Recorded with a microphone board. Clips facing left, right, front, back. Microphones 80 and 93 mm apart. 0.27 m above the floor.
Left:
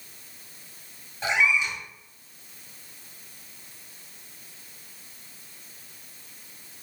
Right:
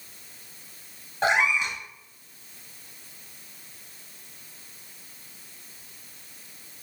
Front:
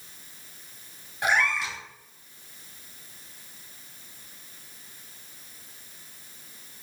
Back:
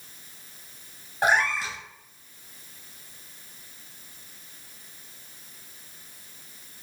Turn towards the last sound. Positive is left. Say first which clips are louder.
# right 1 dB, back 2 dB
turn(degrees=-125)